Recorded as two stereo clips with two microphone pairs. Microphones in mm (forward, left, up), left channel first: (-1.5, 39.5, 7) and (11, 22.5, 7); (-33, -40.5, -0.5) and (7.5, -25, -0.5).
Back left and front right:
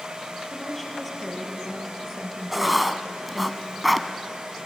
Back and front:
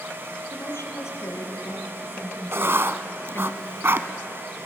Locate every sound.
0.5 s a woman speaking: 150° right, 5 m; by 3.5 s 130° right, 3 m
2.5 s writing: 35° left, 1.0 m